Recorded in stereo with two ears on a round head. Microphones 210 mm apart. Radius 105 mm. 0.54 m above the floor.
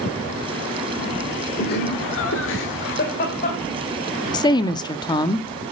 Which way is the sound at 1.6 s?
45° left (ahead or behind).